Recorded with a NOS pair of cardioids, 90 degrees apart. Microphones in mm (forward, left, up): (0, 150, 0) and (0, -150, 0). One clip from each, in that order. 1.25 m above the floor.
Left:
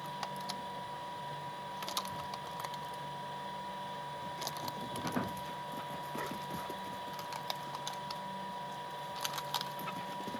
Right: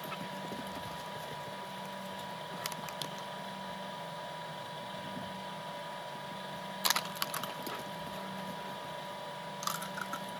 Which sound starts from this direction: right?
A machine running, at 0.0 s.